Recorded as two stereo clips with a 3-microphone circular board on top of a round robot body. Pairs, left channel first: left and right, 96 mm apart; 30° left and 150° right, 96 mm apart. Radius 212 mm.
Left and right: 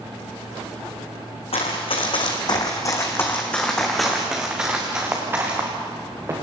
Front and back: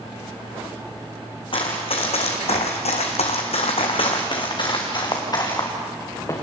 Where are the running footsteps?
65° left, 2.5 m; by 6.3 s 30° right, 5 m.